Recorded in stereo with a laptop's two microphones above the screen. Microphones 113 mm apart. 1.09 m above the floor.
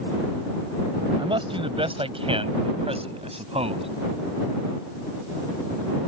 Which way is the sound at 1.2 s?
50° right (ahead or behind).